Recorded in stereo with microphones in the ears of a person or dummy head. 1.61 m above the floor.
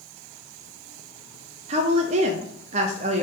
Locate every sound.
1.7 s a woman speaking: 35° right (ahead or behind), 0.7 m